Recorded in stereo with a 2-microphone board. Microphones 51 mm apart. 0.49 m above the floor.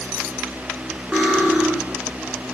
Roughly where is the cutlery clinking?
Right.